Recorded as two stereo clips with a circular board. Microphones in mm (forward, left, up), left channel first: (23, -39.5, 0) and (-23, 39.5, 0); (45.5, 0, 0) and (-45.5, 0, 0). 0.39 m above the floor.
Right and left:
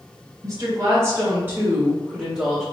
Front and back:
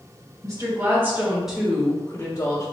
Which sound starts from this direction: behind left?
A woman speaking, at 0.4 s.